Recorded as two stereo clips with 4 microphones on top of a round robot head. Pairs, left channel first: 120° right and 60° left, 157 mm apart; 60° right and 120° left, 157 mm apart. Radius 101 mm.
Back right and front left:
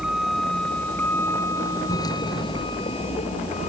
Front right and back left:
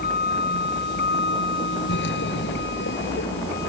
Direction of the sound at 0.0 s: 30° right.